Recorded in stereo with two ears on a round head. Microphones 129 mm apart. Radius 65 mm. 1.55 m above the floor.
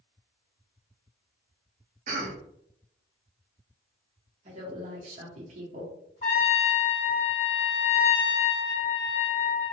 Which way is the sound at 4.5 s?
50° right (ahead or behind).